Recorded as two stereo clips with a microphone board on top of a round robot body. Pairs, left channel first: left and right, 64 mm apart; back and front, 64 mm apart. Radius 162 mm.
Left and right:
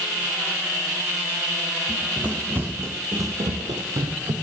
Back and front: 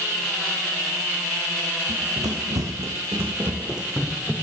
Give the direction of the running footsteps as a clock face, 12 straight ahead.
12 o'clock.